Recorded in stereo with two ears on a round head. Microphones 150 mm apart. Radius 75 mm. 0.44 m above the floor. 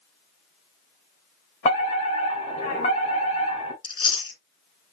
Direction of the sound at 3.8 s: 30° left (ahead or behind).